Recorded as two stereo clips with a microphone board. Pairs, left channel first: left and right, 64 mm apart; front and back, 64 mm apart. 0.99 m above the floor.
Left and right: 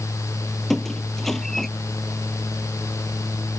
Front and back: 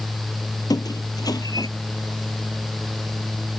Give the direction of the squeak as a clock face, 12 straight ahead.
12 o'clock.